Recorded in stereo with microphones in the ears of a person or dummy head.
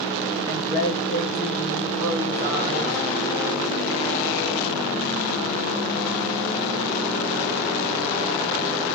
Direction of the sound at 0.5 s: 25° right (ahead or behind).